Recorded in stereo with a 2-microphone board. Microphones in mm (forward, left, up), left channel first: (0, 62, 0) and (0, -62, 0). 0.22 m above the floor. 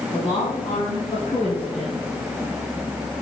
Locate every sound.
0.1 s a woman speaking: 45° left (ahead or behind), 1.9 m; by 2.1 s 65° left (ahead or behind), 3 m